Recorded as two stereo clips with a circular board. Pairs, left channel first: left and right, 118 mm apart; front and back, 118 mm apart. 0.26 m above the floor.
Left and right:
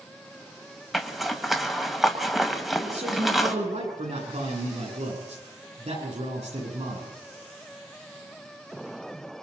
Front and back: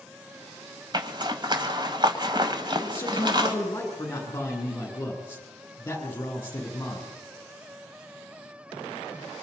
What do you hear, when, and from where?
0.9 s a zipper: straight behind, 1.7 m
2.8 s a man speaking: 70° right, 8.5 m